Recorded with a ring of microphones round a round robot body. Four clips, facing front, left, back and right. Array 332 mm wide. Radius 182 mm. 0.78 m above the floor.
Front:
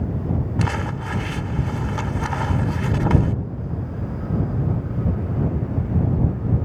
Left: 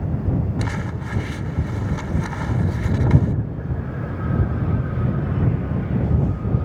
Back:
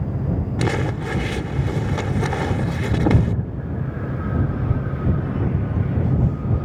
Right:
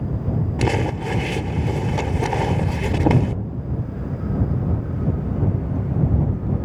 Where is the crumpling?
125° right.